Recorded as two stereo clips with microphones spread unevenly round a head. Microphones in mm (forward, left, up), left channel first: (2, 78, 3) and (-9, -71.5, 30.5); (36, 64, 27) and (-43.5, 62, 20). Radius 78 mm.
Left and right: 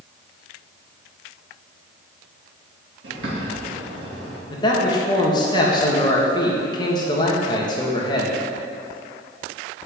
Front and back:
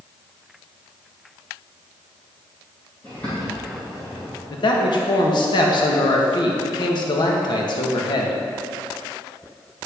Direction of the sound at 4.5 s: 20° left.